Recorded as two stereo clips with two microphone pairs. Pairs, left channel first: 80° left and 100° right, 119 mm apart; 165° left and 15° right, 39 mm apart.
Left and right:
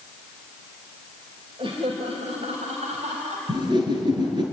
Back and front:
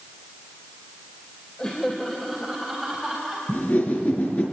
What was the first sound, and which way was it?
Laughter, 130° right.